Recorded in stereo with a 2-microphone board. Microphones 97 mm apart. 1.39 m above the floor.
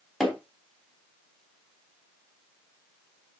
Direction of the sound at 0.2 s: Centre (ahead or behind).